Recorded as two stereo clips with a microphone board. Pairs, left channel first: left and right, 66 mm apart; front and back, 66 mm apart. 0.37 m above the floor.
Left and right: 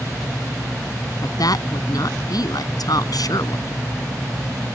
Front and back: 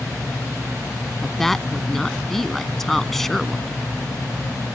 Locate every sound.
1.2 s a woman speaking: 85° left